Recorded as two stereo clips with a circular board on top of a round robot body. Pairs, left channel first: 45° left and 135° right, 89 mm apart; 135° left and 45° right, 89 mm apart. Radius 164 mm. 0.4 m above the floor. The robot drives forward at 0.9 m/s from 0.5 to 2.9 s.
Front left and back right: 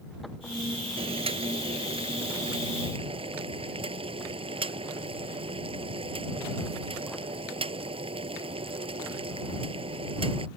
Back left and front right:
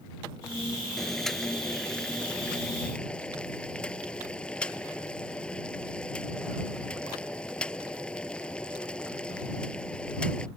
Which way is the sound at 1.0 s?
140° right.